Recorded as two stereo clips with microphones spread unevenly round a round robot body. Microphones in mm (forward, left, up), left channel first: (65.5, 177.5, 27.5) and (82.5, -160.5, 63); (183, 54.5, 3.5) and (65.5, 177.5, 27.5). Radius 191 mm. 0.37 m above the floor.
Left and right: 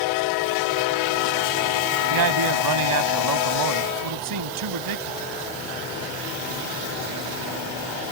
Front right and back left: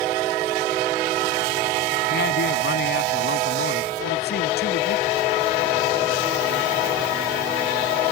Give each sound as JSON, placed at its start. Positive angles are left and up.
{"t": 2.1, "sound": "a man speaking", "azimuth_deg": -65}